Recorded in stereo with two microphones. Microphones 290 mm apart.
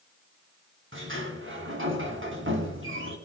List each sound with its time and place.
0.9 s a sliding door: 45° right (ahead or behind), 2.5 m